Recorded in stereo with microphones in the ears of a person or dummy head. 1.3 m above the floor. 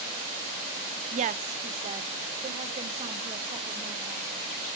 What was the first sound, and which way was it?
A woman speaking, 40° right (ahead or behind).